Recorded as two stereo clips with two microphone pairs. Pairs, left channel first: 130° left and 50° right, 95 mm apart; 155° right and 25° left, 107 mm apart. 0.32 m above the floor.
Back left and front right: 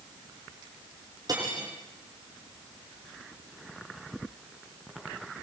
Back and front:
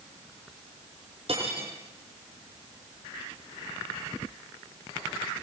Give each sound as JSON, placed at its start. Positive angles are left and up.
{"t": 1.3, "sound": "cutlery clinking", "azimuth_deg": -5, "distance_m": 7.5}